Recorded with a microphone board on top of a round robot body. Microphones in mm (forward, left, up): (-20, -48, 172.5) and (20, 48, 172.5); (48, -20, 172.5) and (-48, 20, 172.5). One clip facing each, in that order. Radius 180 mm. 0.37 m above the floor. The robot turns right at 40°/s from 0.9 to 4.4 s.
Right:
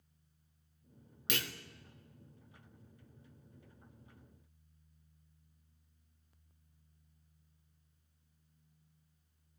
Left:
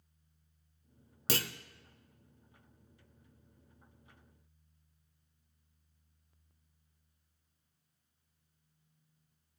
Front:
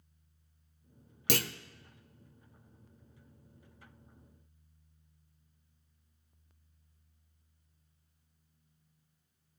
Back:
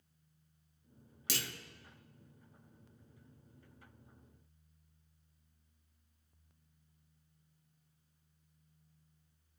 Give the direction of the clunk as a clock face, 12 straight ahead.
12 o'clock.